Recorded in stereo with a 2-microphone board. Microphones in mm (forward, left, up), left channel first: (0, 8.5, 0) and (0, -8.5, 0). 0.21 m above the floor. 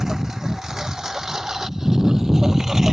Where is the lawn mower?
30° right (ahead or behind); by 2.9 s 25° right (ahead or behind).